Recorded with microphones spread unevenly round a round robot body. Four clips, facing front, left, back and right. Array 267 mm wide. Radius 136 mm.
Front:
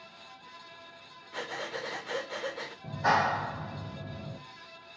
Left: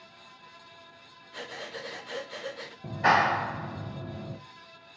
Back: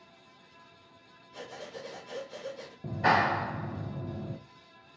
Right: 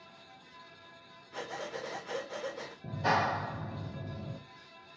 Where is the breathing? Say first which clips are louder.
Right 1 dB, front 5 dB; 20° right, 1.2 m.